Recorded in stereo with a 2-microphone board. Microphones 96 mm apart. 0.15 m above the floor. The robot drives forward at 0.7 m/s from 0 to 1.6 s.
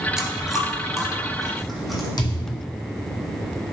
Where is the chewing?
10° right (ahead or behind), 0.7 m; by 2.1 s 5° right (ahead or behind), 1.7 m.